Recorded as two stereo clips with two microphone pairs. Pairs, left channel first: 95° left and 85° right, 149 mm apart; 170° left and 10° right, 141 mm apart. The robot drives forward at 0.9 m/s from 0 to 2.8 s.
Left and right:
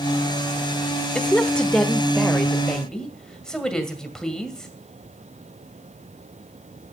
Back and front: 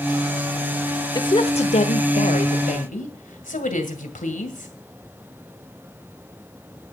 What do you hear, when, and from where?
1.1 s a woman speaking: 175° left, 0.8 m; by 4.7 s straight behind, 2.0 m